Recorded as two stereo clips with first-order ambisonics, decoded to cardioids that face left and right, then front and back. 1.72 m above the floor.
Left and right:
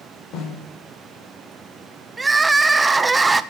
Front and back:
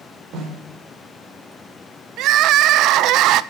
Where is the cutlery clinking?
I don't hear cutlery clinking.